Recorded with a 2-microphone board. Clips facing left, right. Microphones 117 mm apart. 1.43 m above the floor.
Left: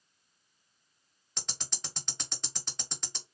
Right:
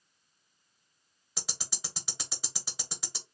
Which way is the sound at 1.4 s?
5° right (ahead or behind).